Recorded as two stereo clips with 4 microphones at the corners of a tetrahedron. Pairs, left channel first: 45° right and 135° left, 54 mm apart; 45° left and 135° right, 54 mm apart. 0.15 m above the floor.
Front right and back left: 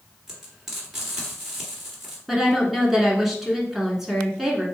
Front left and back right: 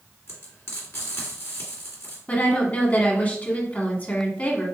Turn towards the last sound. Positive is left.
turn(degrees=50)